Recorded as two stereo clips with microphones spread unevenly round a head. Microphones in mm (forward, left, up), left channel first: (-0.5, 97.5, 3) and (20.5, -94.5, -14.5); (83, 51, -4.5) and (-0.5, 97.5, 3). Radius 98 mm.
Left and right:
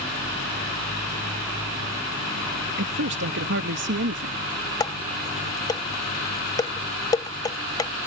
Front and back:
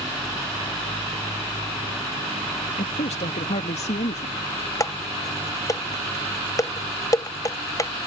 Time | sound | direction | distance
2.8 | a man speaking | 55° right | ?
4.8 | dishes clattering | 25° left | ?